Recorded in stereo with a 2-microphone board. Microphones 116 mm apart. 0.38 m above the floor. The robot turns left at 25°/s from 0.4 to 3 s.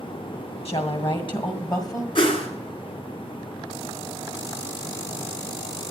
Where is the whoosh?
50° left (ahead or behind), 1.6 m; by 2.5 s 55° left (ahead or behind), 1.6 m.